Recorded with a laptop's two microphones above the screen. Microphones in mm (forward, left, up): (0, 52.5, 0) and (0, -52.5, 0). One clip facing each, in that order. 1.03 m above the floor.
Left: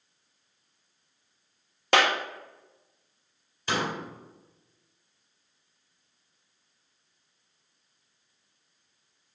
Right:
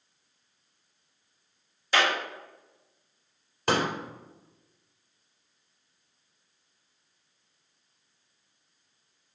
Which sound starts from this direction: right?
A pop, at 3.7 s.